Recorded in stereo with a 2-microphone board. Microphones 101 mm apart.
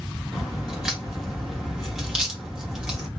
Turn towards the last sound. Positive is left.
turn(degrees=-5)  # may be behind; listen again after turning